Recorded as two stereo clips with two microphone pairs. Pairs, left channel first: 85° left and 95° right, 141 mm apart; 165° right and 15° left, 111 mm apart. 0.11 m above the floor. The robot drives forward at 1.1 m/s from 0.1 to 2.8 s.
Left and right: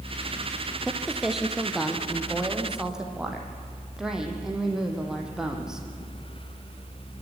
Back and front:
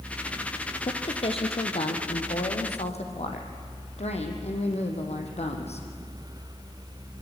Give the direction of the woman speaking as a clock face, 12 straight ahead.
6 o'clock.